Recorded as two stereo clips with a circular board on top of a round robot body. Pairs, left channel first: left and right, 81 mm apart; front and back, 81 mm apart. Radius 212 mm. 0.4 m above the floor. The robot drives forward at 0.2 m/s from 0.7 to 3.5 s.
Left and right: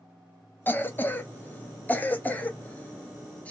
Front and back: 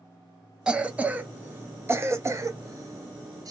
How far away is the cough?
About 0.8 m.